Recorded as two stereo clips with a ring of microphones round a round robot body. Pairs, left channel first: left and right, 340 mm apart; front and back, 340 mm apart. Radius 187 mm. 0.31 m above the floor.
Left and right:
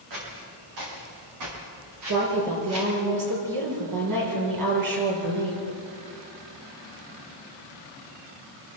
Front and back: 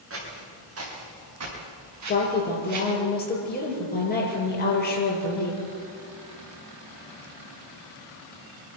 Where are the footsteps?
130° right, 9 m; by 3.0 s 145° right, 7.5 m.